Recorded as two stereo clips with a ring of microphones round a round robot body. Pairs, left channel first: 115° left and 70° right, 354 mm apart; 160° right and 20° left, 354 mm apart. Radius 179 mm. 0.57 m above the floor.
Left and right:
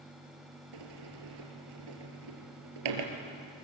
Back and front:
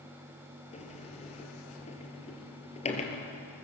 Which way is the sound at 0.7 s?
85° right.